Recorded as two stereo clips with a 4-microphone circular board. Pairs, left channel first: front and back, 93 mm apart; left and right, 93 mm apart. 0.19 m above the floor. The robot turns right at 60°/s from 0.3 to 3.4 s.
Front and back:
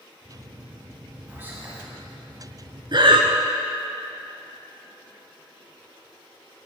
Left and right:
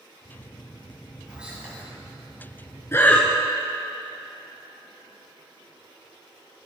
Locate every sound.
1.3 s whispering: 155° right, 1.0 m; by 1.8 s 125° right, 1.0 m
2.9 s breathing: 150° left, 0.7 m; by 3.3 s 175° left, 0.7 m